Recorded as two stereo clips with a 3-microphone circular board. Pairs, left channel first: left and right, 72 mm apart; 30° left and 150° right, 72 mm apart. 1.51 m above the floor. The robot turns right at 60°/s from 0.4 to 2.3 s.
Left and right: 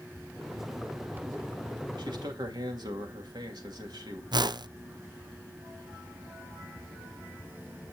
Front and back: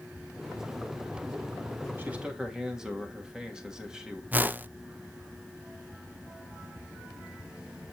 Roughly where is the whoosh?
Right.